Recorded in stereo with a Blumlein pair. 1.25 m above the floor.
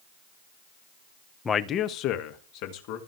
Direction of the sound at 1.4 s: 15° left.